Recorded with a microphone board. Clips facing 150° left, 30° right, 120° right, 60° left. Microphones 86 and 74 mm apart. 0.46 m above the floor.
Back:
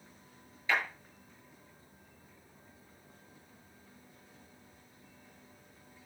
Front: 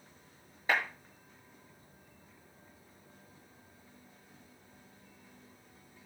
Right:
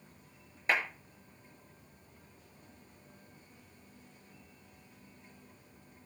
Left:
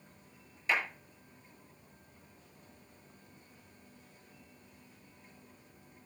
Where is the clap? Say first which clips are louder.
Front 1 dB, right 1 dB; 75° right, 8 m.